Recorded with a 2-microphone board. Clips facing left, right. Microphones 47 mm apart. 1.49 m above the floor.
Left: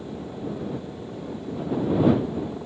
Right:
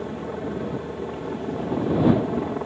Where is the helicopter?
55° right (ahead or behind).